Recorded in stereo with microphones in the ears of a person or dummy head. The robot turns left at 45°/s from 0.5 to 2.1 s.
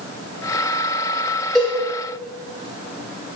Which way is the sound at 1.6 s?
Centre (ahead or behind).